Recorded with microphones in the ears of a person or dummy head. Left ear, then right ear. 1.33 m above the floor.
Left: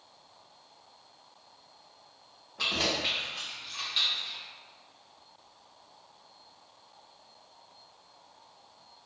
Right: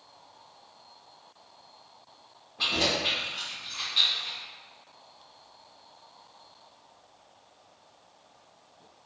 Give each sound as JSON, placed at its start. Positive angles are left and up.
{"t": 2.6, "sound": "keys jangling", "side_deg": 45, "distance_m": 1.3}